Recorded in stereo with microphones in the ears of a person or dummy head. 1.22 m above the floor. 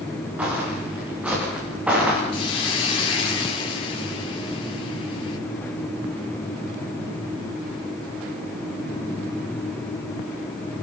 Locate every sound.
0.4 s footsteps: 10° right (ahead or behind), 8.5 m
2.3 s a hiss: 30° left (ahead or behind), 4 m